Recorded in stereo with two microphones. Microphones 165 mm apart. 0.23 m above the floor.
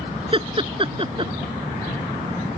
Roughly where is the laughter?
Right.